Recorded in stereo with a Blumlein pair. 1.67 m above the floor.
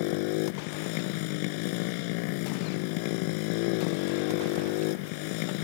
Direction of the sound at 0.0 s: 45° left.